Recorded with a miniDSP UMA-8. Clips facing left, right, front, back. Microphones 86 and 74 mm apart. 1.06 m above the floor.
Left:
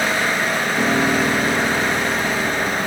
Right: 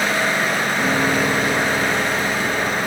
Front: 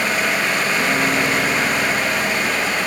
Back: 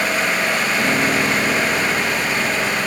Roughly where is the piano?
Left.